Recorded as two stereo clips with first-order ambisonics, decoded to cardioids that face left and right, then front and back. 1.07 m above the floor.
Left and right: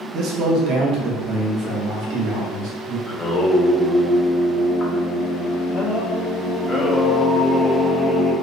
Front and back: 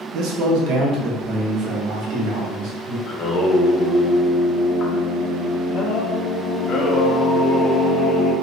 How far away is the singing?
About 0.6 m.